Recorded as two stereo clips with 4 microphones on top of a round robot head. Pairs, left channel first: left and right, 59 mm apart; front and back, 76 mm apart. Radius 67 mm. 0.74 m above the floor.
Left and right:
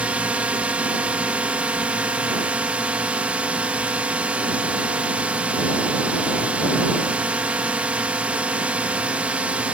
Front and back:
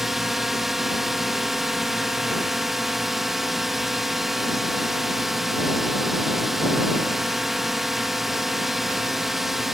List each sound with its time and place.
0.0 s a drone: 95° right